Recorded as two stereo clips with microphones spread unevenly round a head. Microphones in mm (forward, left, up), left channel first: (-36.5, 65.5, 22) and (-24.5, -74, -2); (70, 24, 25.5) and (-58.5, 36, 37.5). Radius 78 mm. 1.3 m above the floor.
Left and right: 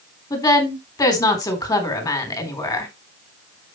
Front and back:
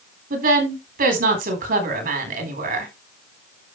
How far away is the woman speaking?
About 4 m.